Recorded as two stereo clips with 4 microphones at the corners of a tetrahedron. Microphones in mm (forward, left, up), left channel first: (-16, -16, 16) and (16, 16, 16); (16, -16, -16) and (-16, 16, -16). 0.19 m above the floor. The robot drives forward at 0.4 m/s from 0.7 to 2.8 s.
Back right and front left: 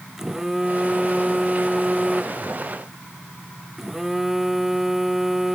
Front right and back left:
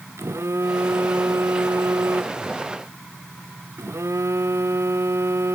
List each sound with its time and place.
0.2 s a phone buzzing: 125° left; by 5.5 s 130° left